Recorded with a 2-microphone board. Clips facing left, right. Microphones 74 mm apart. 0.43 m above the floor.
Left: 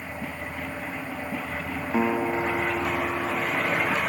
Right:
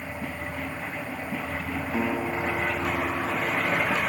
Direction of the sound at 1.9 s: 25° left (ahead or behind).